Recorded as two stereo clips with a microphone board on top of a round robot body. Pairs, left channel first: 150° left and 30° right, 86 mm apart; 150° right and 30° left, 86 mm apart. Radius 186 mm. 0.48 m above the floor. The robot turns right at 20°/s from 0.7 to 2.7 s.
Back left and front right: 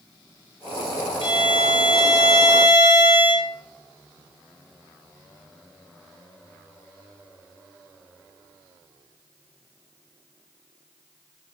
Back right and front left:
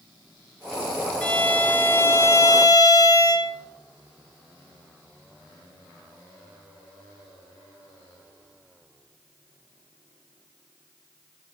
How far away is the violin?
About 0.8 m.